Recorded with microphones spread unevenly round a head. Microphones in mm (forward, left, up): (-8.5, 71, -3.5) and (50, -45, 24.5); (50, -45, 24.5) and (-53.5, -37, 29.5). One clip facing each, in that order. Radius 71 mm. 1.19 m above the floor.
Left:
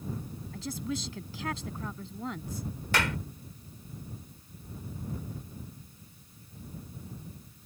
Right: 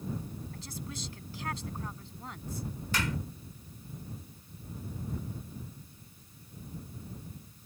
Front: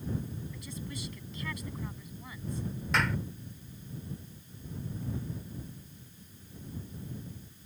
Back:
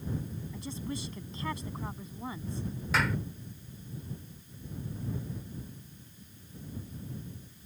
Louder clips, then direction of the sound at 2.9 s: Left 4 dB, even; 90° left.